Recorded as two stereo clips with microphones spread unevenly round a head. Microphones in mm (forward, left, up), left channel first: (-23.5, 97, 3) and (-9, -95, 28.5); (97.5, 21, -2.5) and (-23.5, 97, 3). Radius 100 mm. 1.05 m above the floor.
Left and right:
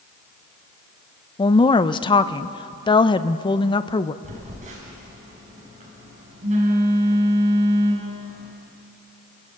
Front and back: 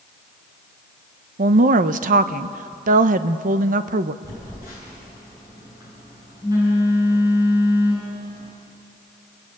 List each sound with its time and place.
1.4 s a woman speaking: 150° left, 0.8 m
4.2 s a phone buzzing: 135° right, 6.5 m